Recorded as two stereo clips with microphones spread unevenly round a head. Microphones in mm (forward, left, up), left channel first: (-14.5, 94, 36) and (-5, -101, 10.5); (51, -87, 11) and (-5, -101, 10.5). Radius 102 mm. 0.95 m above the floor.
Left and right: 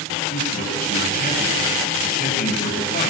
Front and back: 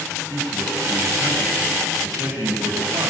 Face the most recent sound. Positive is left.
turn(degrees=140)